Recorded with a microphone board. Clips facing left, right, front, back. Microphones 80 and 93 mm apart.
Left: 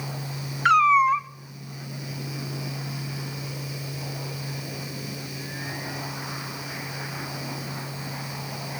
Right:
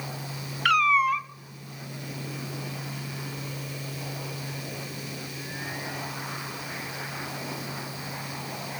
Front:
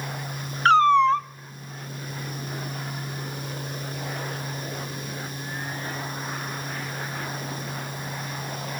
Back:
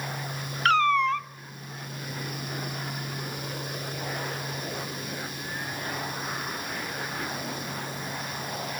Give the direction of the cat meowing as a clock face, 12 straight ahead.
11 o'clock.